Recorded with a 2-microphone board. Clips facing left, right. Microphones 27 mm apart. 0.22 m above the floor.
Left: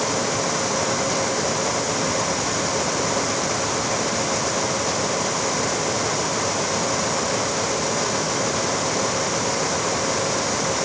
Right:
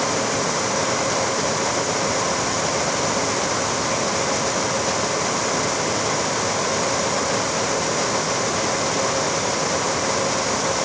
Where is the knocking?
No knocking in this recording.